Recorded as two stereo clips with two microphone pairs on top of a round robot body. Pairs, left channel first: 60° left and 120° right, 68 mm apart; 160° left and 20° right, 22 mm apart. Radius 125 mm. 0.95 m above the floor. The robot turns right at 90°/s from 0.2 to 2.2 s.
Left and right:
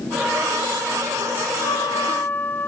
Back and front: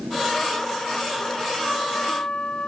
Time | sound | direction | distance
1.6 | a trumpet | 70° left | ?